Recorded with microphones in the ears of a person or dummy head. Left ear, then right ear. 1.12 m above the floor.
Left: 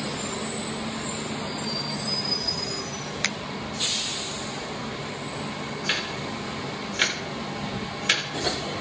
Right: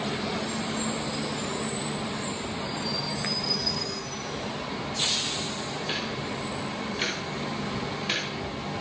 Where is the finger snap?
75° left (ahead or behind), 0.8 m.